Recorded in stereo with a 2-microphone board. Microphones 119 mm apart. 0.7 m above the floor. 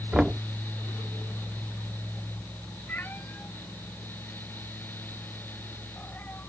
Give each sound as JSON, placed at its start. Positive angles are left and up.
{"t": 0.1, "sound": "knocking", "side_deg": -5}
{"t": 2.9, "sound": "a cat meowing", "side_deg": 15}